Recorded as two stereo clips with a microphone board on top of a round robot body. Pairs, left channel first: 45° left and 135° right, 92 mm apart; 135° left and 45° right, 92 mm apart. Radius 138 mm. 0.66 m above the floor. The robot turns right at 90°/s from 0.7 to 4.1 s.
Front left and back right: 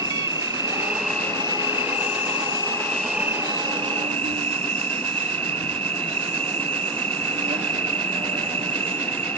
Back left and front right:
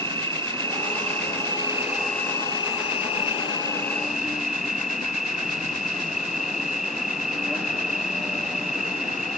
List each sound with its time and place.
0.0 s an insect: 80° right; by 9.4 s 130° right